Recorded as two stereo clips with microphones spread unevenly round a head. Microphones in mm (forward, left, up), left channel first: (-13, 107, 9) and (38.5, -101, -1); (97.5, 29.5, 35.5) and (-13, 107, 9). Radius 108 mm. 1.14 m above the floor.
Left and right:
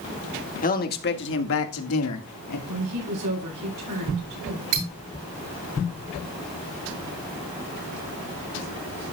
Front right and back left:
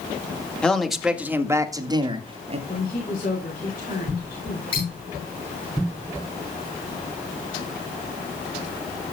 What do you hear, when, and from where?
0.6 s a man speaking: 50° left, 1.9 m; by 2.6 s 105° left, 2 m
2.7 s a woman speaking: 85° right, 8 m
4.7 s cutlery clinking: 105° right, 9.5 m